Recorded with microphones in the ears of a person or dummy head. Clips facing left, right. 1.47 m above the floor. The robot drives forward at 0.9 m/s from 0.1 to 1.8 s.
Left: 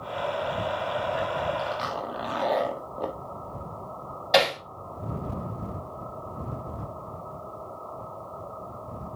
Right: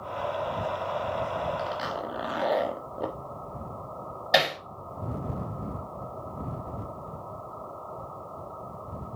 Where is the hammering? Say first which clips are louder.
Left 3 dB; 15° right (ahead or behind), 4 m.